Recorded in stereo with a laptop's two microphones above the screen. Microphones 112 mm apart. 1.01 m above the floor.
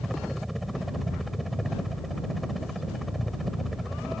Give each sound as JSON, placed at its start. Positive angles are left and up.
{"t": 0.0, "sound": "a helicopter", "side_deg": 0}